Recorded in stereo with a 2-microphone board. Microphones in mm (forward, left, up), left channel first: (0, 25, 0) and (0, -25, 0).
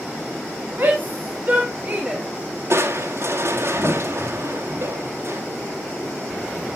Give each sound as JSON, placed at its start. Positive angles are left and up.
{"t": 0.8, "sound": "a shout", "side_deg": -40, "distance_m": 3.5}
{"t": 2.7, "sound": "crushing", "side_deg": -50, "distance_m": 1.9}